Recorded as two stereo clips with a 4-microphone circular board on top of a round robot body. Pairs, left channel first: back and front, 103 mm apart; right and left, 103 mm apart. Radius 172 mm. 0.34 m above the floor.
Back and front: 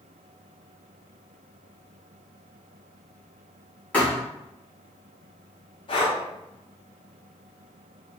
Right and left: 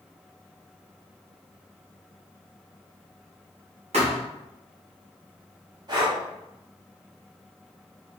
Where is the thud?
105° left, 1.6 m.